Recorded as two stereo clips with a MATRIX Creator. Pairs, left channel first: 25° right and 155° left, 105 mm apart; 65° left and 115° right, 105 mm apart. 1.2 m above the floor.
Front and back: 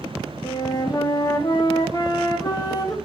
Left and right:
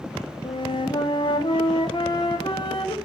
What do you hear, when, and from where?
0.4 s a flute: 30° left, 1.3 m